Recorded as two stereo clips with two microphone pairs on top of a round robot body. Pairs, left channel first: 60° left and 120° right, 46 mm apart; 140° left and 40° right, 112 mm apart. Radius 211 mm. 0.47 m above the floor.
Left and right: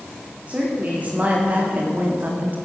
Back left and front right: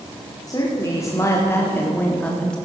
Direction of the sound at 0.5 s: 170° right.